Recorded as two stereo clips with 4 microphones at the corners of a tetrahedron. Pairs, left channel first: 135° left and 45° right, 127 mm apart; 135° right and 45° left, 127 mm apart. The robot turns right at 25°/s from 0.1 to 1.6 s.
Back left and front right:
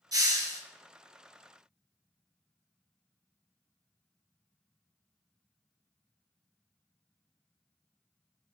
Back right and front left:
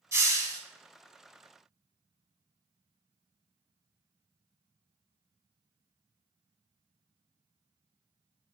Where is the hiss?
15° right, 0.5 m; by 0.6 s straight ahead, 0.5 m.